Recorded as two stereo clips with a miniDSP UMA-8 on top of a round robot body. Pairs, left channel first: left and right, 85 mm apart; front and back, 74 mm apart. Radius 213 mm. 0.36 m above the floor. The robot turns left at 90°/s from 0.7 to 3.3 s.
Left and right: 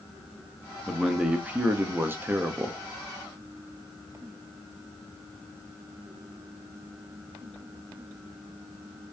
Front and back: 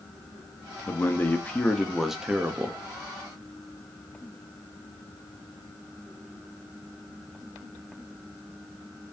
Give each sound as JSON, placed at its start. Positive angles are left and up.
{"t": 0.9, "sound": "a man speaking", "azimuth_deg": 15, "distance_m": 1.1}